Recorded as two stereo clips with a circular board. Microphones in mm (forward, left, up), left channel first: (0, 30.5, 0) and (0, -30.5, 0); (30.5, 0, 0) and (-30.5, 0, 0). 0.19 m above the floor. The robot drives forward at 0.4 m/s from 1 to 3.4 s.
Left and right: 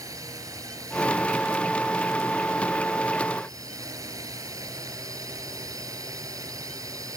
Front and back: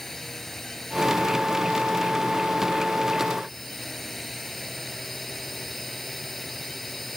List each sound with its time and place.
0.0 s a drone: 85° right; by 7.2 s 90° right